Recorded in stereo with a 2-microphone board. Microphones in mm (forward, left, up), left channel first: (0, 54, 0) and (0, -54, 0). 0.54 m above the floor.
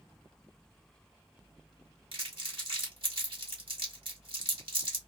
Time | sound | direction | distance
2.1 | crumpling | 60° right (ahead or behind) | 1.7 m